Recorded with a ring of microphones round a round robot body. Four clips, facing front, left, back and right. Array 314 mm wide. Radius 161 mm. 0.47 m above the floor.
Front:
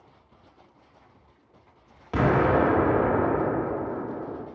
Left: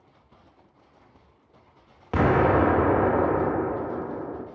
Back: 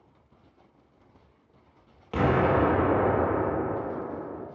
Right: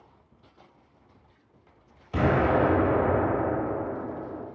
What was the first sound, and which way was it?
An explosion, 80° left.